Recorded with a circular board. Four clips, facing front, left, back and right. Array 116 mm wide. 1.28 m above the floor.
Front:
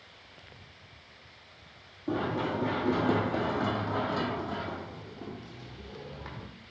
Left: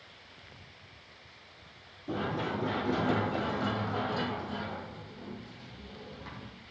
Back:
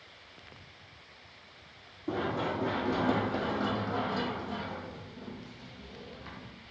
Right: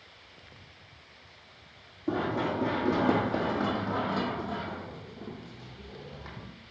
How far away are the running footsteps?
About 3 m.